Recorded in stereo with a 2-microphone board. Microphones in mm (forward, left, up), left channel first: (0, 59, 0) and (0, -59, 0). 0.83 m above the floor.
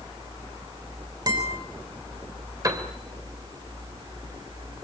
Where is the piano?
30° right (ahead or behind), 3 m.